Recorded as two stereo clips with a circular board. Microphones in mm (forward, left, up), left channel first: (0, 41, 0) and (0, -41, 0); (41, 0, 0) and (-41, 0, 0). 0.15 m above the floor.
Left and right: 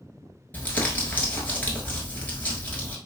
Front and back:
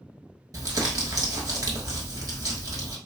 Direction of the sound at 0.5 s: 155° left.